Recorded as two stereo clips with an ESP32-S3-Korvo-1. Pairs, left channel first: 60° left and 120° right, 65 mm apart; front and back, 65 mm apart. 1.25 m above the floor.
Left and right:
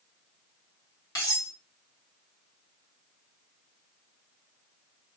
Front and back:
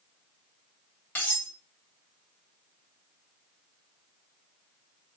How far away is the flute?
No flute in this recording.